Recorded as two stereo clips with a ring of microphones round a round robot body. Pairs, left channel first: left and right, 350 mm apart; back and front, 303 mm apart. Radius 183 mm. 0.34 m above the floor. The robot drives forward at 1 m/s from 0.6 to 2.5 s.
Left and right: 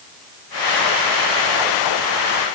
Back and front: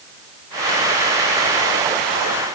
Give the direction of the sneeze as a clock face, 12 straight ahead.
I don't hear a sneeze.